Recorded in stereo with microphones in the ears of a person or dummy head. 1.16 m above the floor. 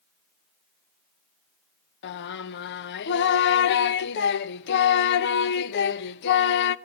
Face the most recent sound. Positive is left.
turn(degrees=65)  # may be behind; listen again after turning